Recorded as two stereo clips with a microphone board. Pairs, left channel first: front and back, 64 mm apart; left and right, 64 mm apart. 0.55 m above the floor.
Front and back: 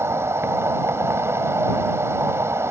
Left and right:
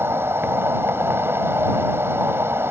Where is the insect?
140° right.